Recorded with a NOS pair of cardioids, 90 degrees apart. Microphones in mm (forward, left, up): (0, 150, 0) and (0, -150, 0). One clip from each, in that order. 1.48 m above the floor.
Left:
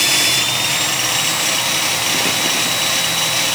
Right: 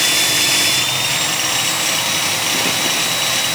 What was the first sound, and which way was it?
Only background noise.